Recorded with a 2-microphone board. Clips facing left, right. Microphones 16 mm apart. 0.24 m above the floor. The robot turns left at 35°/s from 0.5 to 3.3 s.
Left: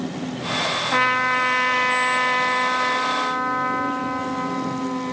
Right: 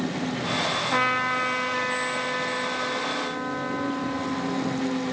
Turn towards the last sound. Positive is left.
turn(degrees=80)